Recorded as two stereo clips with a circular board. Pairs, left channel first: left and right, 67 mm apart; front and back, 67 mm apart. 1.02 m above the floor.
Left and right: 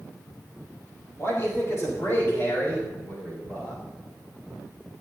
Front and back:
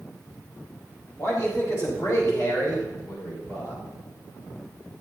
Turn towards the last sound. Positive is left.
turn(degrees=25)